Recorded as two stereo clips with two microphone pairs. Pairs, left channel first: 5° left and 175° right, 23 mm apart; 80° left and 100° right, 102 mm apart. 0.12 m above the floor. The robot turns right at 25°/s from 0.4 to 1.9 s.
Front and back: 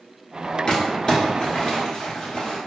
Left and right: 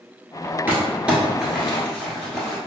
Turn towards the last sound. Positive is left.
turn(degrees=-5)